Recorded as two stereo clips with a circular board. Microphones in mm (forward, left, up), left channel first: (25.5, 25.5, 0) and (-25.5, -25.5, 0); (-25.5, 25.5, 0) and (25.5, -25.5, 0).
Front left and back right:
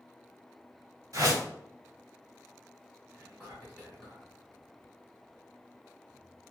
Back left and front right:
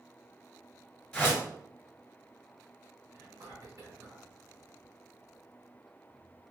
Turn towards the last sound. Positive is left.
turn(degrees=-35)